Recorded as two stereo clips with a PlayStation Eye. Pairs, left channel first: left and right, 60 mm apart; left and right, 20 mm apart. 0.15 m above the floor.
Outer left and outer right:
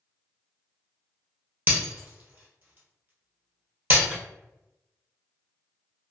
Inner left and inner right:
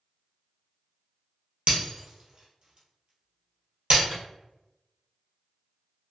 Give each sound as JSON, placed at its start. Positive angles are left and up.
{"t": 1.7, "sound": "breaking glass", "side_deg": -35, "distance_m": 1.2}
{"t": 4.1, "sound": "a microwave", "side_deg": -20, "distance_m": 1.4}